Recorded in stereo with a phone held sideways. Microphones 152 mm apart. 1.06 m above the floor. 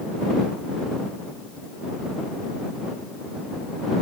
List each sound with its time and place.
Only background noise.